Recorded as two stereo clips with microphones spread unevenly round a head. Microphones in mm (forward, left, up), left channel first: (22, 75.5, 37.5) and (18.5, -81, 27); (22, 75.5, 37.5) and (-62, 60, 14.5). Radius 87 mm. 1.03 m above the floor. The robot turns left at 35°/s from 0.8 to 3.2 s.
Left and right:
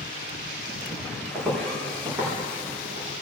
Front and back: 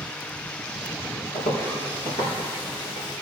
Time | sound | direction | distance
1.3 | footsteps | 5° left | 4 m